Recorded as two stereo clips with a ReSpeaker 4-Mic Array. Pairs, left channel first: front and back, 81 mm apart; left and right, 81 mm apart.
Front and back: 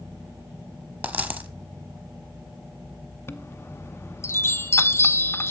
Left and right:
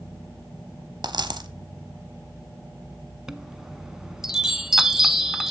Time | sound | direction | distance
1.0 | a dropped coin | 115° right | 0.8 m
3.3 | a chime | 10° right | 0.5 m